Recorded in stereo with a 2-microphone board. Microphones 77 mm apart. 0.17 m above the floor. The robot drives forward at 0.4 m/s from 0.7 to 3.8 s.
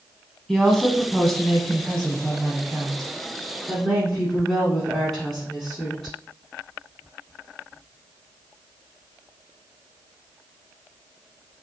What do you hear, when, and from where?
0.5 s a woman speaking: 5° left (ahead or behind), 1.0 m